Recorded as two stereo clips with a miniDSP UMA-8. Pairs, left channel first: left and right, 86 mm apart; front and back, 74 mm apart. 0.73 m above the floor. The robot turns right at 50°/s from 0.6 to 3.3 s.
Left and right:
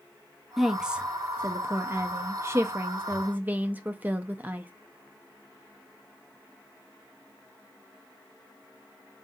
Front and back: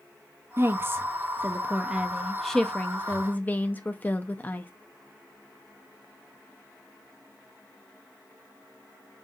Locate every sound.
0.6 s a woman speaking: 175° right, 0.5 m; by 4.7 s 40° right, 0.5 m